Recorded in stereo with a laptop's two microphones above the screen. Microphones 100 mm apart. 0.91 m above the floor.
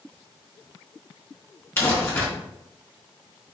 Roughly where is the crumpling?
Left.